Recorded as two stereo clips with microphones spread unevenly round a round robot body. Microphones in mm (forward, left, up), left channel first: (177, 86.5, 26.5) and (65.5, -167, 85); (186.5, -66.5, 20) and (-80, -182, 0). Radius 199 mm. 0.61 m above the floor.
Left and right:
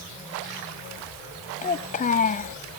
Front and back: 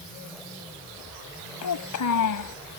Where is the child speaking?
5° left.